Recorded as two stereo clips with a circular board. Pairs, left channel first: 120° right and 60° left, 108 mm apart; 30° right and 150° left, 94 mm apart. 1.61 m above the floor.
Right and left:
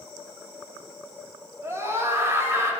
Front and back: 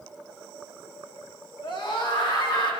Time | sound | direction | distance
1.6 | a scream | 5° right | 4.5 m